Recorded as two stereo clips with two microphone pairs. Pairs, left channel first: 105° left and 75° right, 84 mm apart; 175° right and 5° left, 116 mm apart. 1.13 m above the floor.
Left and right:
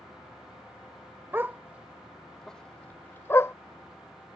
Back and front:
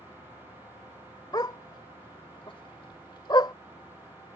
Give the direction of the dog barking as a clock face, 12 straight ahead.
4 o'clock.